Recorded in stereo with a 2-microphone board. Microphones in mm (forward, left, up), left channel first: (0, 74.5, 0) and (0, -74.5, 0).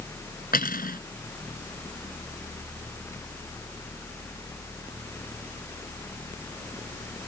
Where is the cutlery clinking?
85° left.